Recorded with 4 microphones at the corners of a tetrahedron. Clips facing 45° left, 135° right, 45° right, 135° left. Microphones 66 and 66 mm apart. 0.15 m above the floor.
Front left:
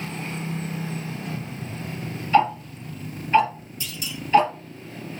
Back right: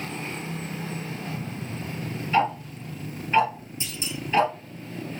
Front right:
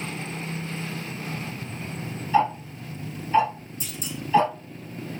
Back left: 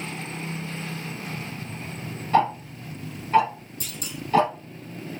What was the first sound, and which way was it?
Ticking, 140° left.